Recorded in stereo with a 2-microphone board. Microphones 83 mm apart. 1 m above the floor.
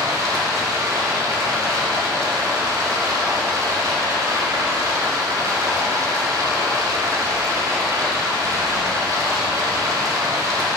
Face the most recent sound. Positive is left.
turn(degrees=-40)  # may be behind; listen again after turning